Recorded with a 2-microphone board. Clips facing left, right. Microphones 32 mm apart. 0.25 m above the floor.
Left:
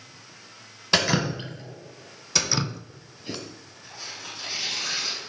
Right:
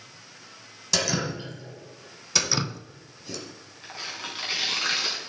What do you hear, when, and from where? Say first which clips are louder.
0.9 s dripping: left 4 dB; 45° left (ahead or behind), 1.2 m
2.4 s dripping: even; 5° left (ahead or behind), 0.5 m
3.8 s tearing paper: right 3 dB; 60° right (ahead or behind), 2.5 m